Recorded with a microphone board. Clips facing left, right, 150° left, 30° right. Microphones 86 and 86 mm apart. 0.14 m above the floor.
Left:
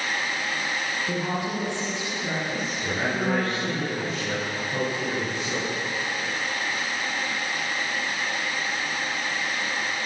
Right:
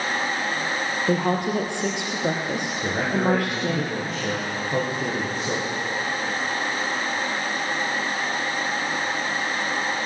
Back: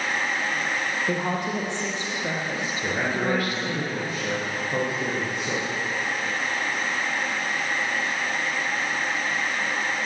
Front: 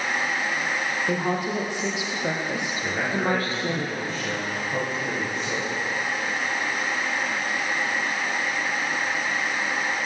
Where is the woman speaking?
125° right, 4.5 m; by 3.8 s 85° right, 5.5 m.